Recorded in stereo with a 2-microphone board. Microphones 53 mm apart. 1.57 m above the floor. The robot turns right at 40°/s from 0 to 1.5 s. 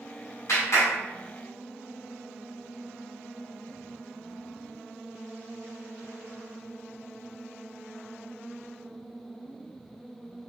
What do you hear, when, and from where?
0.5 s a clap: 70° left (ahead or behind), 1.7 m; by 0.9 s 60° left (ahead or behind), 1.7 m